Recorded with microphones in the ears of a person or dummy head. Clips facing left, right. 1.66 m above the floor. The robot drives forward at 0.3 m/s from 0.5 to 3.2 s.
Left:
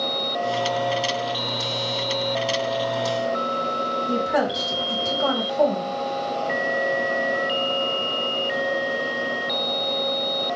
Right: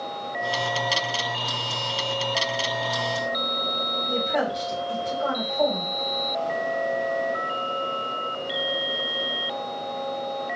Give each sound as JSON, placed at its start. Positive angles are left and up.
{"t": 4.1, "sound": "a woman speaking", "side_deg": 70, "distance_m": 2.0}